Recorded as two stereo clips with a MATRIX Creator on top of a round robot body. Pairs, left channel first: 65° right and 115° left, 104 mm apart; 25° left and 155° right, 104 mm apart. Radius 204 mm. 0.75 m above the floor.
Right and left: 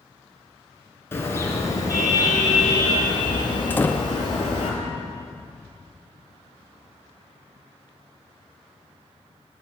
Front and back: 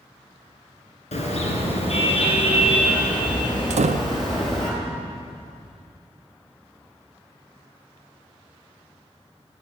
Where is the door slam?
140° right, 0.6 m.